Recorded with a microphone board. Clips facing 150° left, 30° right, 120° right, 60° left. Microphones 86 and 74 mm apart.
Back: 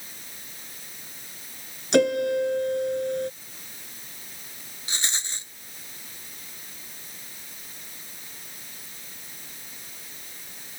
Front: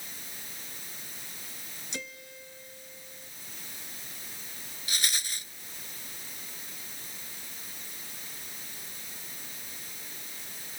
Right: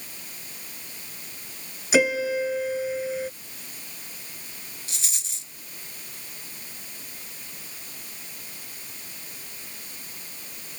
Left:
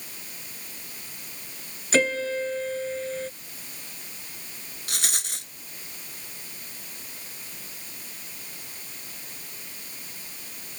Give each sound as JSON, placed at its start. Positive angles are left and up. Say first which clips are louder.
{"t": 1.9, "sound": "a piano", "louder": "back 25 dB, right 2 dB", "azimuth_deg": 160}
{"t": 4.9, "sound": "a rattle", "louder": "back 1 dB, left 9 dB", "azimuth_deg": 85}